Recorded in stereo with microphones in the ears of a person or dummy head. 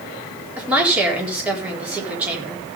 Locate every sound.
0.6 s a woman speaking: 5° right (ahead or behind), 4 m